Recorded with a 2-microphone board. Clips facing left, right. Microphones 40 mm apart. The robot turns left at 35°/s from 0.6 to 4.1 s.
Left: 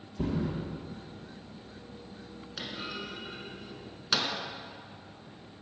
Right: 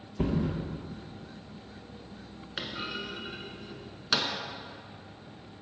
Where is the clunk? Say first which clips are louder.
Right 3 dB; 40° right (ahead or behind), 1.1 m; by 4.3 s 5° right (ahead or behind), 1.1 m.